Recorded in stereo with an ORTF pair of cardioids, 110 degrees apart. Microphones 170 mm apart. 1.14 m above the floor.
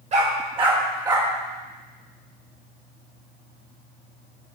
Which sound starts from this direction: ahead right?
A dog barking, at 0.1 s.